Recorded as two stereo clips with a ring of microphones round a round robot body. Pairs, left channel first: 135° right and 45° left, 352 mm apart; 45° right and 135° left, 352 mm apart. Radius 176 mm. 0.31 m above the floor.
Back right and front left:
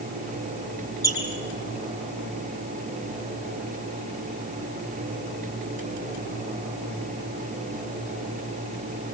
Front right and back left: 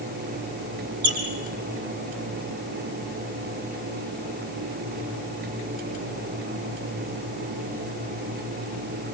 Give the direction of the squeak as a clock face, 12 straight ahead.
7 o'clock.